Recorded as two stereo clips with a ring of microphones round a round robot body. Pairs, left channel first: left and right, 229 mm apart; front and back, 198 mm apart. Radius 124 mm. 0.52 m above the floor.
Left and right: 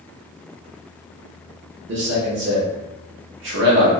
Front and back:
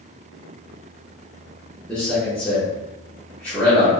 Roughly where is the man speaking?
Right.